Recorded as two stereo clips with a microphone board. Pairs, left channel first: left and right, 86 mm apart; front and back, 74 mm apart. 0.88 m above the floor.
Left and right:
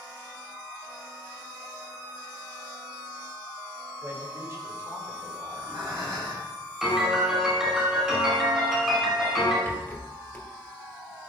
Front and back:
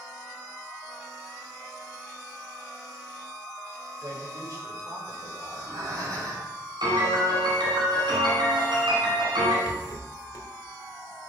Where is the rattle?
20° left, 1.6 m.